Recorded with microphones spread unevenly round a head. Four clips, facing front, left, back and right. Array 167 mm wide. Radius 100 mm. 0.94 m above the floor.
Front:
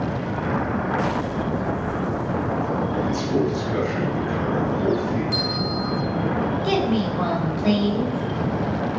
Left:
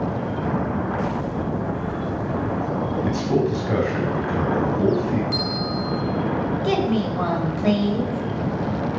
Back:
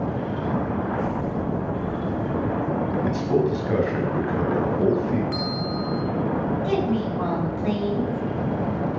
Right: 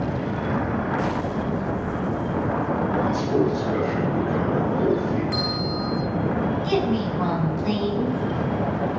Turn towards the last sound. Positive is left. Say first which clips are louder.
# left 4 dB, front 3 dB
turn(degrees=55)